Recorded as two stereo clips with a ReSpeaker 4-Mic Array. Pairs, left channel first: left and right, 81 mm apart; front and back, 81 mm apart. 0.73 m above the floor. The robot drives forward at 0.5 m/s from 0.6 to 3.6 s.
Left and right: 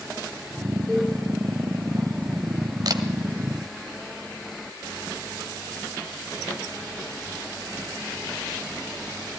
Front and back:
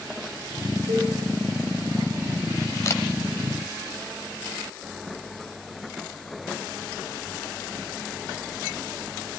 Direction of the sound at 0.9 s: 165° left.